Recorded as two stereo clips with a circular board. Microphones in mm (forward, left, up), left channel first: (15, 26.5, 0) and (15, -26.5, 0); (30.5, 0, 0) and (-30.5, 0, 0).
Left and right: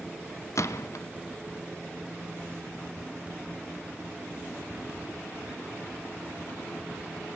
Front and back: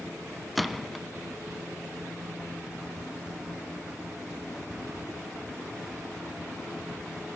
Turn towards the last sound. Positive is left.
turn(degrees=90)